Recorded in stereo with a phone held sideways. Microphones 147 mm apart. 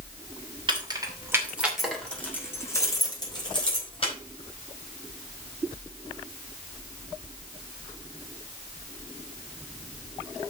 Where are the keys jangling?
35° right (ahead or behind), 3 m; by 4.1 s 40° left (ahead or behind), 4.5 m.